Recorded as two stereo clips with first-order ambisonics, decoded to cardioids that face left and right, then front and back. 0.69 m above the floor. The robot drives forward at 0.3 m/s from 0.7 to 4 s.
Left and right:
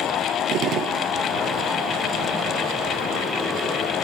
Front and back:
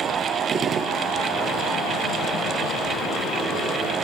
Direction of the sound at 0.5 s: 120° right.